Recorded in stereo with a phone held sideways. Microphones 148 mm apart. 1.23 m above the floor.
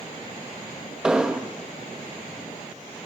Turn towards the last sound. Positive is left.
turn(degrees=-5)  # may be behind; listen again after turning